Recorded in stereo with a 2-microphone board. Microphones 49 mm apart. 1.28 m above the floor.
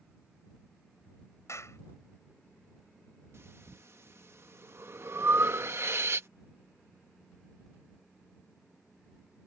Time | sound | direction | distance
1.5 | a clap | 65° left (ahead or behind) | ?
3.3 | breathing | 60° right (ahead or behind) | ?